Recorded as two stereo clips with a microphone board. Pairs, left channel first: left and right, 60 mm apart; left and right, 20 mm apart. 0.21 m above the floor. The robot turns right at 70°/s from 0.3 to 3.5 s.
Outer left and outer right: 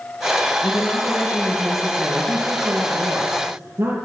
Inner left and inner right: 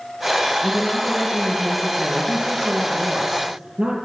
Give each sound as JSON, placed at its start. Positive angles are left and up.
{"t": 0.6, "sound": "a woman speaking", "azimuth_deg": 110, "distance_m": 4.5}